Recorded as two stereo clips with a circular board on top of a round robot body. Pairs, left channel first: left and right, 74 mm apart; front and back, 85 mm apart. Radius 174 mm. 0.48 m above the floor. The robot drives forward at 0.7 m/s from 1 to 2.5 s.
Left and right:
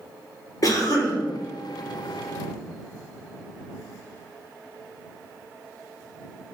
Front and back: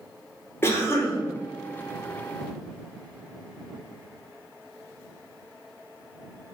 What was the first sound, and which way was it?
A cough, 60° left.